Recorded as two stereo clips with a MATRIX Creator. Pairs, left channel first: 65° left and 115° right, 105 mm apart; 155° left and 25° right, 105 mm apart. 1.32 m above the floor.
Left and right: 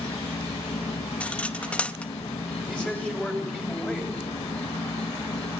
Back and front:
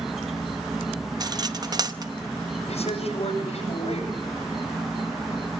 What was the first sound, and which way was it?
An insect, 65° left.